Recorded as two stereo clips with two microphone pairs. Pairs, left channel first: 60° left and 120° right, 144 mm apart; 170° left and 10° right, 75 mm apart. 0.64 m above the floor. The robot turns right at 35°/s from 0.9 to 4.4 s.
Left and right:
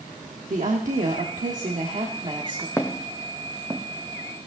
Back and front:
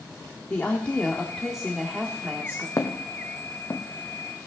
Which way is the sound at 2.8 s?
130° left.